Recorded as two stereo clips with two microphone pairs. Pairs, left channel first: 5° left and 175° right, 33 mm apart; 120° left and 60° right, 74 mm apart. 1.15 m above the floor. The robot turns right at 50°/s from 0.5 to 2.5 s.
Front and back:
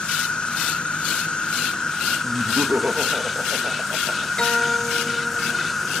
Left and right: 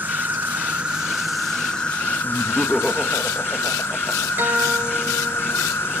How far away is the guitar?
About 0.9 m.